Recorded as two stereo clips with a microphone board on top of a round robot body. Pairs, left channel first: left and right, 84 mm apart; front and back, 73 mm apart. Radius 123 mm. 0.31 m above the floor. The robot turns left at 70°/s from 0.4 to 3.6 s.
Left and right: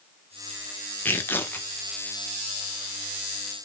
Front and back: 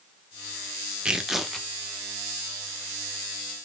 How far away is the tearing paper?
About 1.4 m.